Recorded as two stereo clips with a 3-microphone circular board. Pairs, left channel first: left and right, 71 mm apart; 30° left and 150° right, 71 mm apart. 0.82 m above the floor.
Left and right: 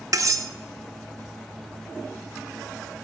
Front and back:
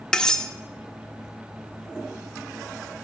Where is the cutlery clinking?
50° right, 0.6 m.